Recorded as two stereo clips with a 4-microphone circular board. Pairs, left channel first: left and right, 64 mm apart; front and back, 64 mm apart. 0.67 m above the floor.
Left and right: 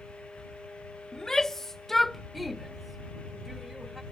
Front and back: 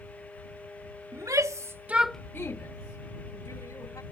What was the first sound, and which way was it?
A shout, 170° left.